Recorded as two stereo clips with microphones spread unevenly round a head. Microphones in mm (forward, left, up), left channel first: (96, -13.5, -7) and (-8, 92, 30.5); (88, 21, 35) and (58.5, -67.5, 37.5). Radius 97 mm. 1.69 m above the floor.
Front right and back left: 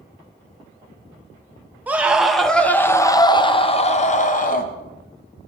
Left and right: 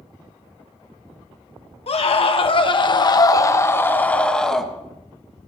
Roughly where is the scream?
Ahead left.